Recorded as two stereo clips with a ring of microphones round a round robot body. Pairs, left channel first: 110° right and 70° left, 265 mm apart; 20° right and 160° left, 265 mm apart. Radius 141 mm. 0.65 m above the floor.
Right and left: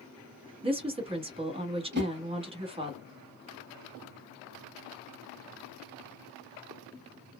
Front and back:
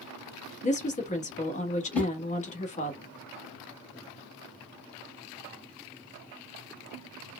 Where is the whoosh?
60° left, 1.1 m.